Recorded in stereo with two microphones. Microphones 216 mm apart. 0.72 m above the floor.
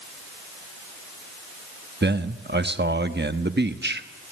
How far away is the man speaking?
About 1.0 m.